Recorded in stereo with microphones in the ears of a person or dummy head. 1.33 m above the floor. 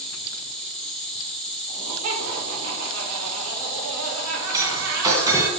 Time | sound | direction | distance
0.0 | an insect | centre (ahead or behind) | 4 m
1.7 | laughter | 85° right | 3 m
4.5 | breaking glass | 15° right (ahead or behind) | 1.8 m